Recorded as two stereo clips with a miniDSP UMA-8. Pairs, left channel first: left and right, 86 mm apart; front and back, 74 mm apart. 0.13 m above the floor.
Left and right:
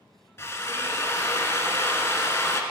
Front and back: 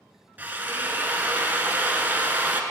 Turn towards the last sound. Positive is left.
turn(degrees=130)